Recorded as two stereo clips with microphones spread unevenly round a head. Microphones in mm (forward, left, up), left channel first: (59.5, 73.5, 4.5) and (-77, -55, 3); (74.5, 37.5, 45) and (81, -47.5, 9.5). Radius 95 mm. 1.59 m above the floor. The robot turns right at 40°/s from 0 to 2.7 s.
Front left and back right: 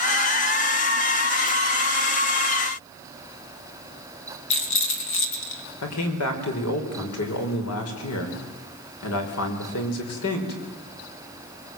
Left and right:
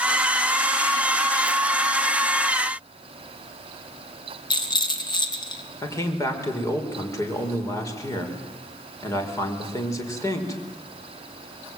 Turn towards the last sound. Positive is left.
turn(degrees=45)